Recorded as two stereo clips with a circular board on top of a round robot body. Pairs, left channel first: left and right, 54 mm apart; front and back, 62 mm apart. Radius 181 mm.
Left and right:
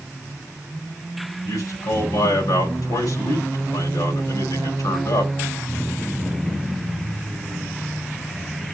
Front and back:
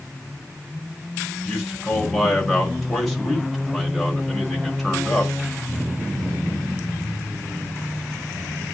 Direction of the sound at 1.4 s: 85° left.